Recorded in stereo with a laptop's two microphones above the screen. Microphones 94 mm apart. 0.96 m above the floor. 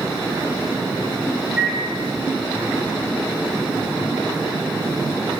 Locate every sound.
1.6 s a microwave: 10° right (ahead or behind), 3.5 m